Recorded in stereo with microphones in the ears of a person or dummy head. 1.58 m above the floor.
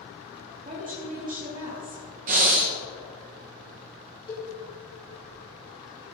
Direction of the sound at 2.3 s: 35° right (ahead or behind).